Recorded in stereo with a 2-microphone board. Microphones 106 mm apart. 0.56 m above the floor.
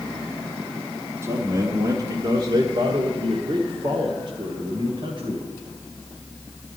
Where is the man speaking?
25° right (ahead or behind), 1.3 m; by 5.5 s 50° right (ahead or behind), 3 m.